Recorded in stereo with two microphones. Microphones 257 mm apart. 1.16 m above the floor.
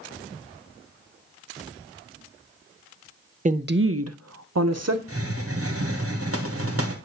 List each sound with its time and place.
3.5 s a woman speaking: 30° right (ahead or behind), 0.5 m; by 5.0 s 70° right (ahead or behind), 0.8 m
5.1 s a hiss: 60° right (ahead or behind), 0.9 m